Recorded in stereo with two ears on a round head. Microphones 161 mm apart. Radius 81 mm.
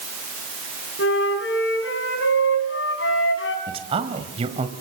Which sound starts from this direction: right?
A man speaking, at 3.7 s.